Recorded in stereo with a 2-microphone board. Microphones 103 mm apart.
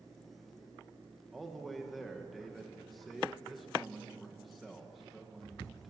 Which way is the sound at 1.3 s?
Centre (ahead or behind).